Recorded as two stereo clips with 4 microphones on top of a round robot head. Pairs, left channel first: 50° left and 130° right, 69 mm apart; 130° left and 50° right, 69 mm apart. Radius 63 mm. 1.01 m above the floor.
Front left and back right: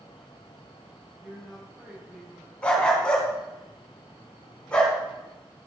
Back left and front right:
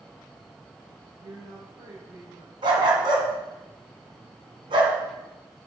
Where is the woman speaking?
60° right, 4 m.